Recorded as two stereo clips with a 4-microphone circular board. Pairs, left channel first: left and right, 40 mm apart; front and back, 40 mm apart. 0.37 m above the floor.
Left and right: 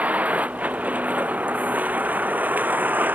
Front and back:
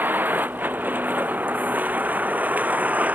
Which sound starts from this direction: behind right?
A vehicle, at 0.0 s.